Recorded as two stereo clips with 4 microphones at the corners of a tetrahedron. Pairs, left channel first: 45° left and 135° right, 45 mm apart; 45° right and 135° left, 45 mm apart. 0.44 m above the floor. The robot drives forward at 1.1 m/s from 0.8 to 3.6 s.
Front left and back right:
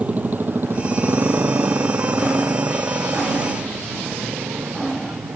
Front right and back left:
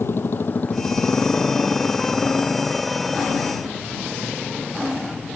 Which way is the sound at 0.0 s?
75° right.